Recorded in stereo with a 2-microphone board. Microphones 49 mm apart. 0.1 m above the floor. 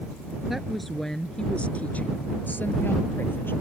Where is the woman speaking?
5° right (ahead or behind); by 3.5 s 45° left (ahead or behind).